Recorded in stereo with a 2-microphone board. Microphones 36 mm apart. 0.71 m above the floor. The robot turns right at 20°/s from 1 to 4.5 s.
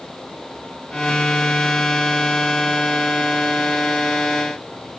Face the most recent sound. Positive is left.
No sound to turn to.